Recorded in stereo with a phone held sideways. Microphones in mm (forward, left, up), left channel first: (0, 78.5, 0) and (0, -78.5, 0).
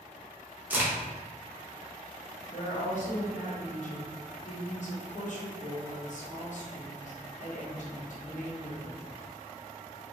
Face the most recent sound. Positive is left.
turn(degrees=55)  # may be behind; listen again after turning